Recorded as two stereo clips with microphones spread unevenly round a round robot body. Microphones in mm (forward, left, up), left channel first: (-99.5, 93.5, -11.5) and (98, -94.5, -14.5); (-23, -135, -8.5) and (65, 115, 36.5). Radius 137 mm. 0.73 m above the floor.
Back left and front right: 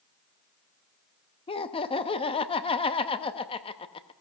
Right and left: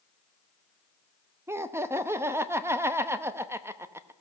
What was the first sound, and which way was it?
Laughter, 165° left.